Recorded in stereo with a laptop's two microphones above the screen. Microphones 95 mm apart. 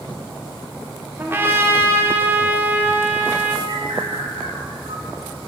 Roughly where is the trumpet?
Right.